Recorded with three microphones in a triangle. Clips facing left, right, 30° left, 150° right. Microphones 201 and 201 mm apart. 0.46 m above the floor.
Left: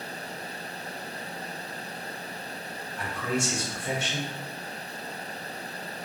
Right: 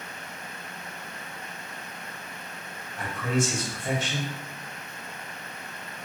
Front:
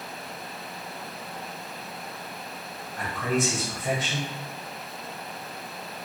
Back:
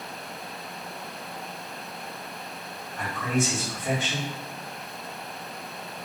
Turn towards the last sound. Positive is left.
turn(degrees=-50)